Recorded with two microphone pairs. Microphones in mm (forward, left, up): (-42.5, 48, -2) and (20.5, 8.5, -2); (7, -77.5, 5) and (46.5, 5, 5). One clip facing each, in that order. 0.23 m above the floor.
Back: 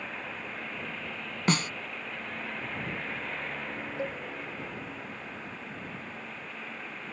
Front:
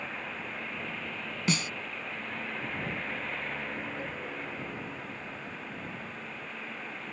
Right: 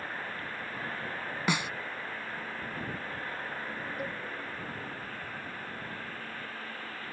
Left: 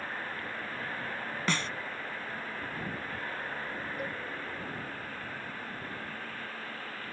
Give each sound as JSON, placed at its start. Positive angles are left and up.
{"t": 1.5, "sound": "a snare drum", "azimuth_deg": 170}
{"t": 4.0, "sound": "a cowbell", "azimuth_deg": 155}